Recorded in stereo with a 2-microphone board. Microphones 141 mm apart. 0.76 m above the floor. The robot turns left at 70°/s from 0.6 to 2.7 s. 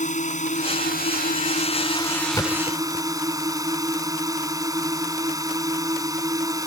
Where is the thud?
20° left (ahead or behind); by 3.0 s 45° left (ahead or behind).